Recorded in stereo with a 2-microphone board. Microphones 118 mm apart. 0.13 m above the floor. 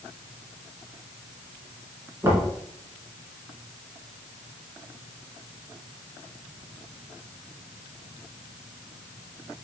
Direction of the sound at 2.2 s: 25° right (ahead or behind).